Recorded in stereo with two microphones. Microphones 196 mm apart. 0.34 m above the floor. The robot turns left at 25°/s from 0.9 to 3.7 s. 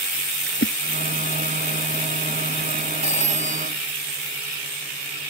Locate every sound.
0.5 s a splash: 80° left
3.0 s a phone ringing: 45° left (ahead or behind); by 3.7 s 30° left (ahead or behind)